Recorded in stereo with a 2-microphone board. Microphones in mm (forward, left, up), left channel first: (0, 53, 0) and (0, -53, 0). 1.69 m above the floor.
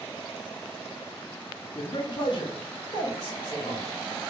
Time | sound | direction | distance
1.8 | a man speaking | 55° left (ahead or behind) | 0.5 m